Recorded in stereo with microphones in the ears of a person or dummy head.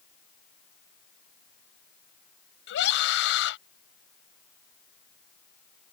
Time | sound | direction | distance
2.7 | a scream | 65° left (ahead or behind) | ?